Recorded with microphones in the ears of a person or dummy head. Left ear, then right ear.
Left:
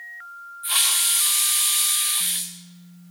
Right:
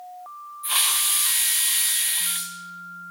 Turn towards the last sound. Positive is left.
turn(degrees=-10)  # may be behind; listen again after turning